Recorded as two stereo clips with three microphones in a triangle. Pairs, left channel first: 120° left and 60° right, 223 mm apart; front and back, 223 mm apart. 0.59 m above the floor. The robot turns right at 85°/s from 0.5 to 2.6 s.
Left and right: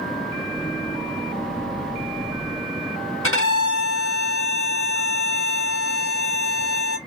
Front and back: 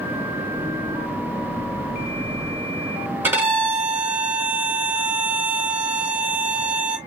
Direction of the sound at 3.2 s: 100° left.